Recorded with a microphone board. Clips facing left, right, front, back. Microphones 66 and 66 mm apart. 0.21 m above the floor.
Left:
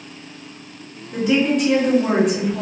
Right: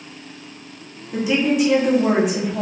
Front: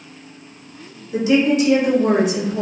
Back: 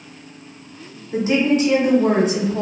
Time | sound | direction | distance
1.1 | a woman speaking | 170° right | 1.2 m